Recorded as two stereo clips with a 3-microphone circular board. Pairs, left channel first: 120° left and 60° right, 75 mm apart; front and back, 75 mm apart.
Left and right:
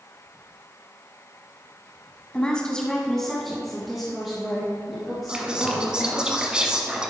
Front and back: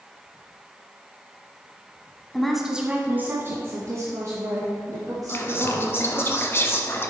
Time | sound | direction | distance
2.3 | a woman speaking | 75° left | 1.2 m
5.3 | whispering | 10° left | 1.2 m